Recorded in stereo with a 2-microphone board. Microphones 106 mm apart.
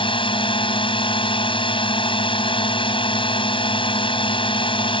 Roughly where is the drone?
Left.